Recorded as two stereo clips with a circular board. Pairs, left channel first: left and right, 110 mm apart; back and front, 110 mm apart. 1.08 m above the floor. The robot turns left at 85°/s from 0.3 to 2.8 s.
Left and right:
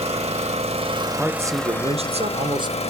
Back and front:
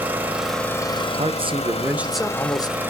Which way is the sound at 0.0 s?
75° right.